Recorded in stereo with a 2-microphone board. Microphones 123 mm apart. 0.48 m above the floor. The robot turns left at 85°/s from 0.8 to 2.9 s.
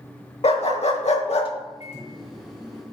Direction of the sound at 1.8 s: 100° left.